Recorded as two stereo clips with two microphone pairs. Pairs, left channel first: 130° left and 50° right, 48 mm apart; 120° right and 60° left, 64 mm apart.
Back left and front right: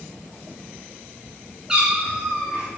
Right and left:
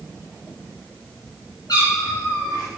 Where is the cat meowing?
130° right, 5.5 m.